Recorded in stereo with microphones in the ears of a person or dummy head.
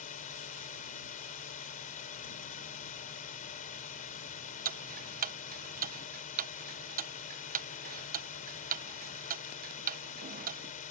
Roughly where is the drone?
Left.